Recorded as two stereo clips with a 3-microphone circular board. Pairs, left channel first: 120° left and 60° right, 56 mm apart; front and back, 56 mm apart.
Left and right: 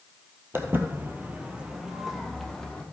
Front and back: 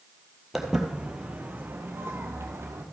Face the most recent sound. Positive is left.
turn(degrees=-160)